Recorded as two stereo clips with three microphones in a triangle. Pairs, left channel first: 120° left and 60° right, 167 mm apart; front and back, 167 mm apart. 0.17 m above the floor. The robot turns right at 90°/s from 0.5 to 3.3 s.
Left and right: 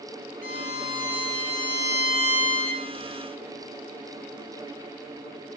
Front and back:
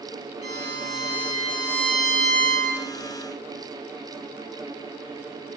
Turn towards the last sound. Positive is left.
turn(degrees=-145)